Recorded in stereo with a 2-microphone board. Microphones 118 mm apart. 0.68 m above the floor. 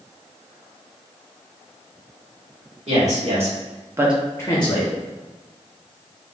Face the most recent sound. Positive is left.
turn(degrees=55)  # may be behind; listen again after turning